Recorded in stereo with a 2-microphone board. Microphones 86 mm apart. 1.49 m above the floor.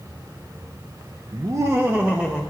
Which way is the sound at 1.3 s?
50° right (ahead or behind).